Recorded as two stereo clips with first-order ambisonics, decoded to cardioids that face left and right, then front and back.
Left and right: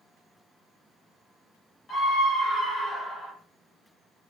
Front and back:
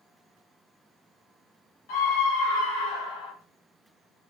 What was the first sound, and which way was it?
A scream, 20° left.